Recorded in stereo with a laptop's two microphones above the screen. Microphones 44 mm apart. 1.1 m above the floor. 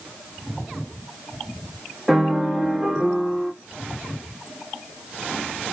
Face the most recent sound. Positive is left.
turn(degrees=-5)  # may be behind; listen again after turning